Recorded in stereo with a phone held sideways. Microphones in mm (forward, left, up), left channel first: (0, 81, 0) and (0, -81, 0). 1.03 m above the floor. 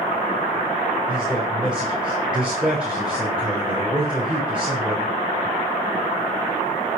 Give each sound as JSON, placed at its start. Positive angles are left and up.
{"t": 1.1, "sound": "a man speaking", "side_deg": -5, "distance_m": 4.0}